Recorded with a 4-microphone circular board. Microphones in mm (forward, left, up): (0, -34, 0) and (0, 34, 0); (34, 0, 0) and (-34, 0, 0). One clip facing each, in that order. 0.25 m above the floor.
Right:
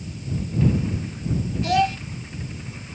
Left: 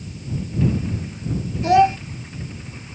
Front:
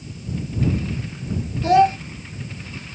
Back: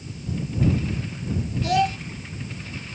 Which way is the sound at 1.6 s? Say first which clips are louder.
Left 7 dB, front 7 dB; 35° left.